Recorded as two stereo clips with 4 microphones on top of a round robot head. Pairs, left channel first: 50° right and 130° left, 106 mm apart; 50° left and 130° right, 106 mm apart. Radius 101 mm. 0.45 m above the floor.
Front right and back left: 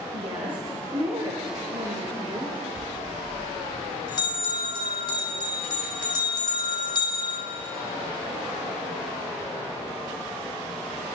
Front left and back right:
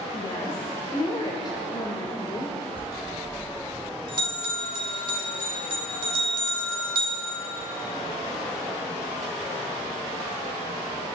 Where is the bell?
90° right, 3.5 m.